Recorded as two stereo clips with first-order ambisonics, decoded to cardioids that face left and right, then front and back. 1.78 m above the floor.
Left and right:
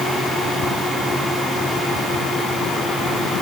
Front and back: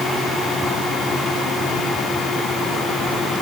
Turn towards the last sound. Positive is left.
No sound to turn to.